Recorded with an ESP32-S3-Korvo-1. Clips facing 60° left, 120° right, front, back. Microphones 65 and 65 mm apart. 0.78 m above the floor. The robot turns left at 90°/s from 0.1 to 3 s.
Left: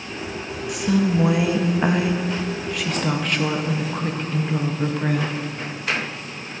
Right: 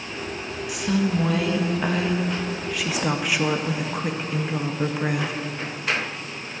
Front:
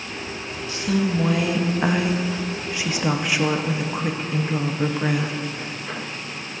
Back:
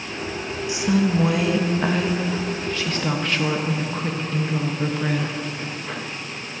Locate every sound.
0.7 s a woman speaking: 155° left, 0.5 m; by 5.3 s 50° right, 0.5 m